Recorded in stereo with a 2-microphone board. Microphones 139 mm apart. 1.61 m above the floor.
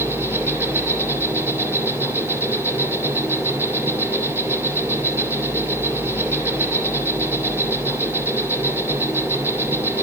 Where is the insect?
15° right (ahead or behind), 2.5 m.